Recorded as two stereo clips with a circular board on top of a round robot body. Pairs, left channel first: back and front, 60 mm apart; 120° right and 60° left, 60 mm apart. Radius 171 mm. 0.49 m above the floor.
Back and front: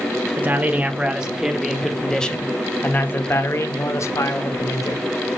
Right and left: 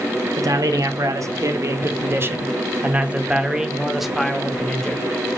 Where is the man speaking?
65° left, 3 m; by 5.1 s 165° left, 3.5 m.